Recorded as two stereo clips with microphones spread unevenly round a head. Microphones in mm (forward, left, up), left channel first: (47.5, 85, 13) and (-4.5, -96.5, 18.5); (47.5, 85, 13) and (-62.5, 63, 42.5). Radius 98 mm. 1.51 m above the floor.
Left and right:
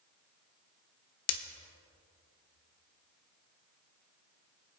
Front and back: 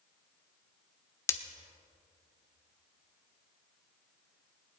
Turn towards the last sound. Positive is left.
turn(degrees=80)